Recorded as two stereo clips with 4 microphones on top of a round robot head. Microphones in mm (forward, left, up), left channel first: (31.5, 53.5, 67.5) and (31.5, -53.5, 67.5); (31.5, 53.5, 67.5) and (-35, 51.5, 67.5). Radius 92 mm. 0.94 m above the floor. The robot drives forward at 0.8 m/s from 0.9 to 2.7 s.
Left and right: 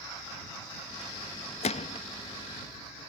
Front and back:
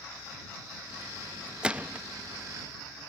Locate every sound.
1.6 s a gunshot: 105° left; by 2.0 s 120° left